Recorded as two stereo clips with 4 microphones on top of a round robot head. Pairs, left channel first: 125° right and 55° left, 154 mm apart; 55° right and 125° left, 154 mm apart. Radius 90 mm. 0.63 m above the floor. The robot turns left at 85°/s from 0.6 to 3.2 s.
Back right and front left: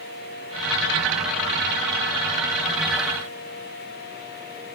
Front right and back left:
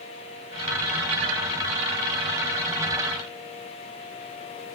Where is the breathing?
No breathing in this recording.